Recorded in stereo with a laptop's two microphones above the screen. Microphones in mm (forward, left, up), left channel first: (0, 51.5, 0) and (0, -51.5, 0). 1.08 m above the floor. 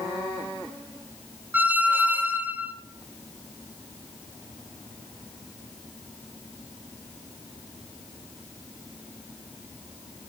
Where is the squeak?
15° right (ahead or behind), 0.8 m.